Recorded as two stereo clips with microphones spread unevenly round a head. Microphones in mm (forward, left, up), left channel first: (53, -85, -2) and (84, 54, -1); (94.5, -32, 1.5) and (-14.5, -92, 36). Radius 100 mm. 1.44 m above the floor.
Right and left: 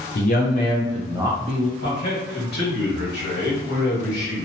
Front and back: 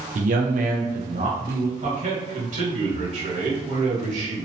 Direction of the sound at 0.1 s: 145° right.